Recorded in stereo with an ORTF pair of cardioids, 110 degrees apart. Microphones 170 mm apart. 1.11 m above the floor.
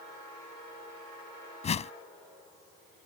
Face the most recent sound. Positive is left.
turn(degrees=40)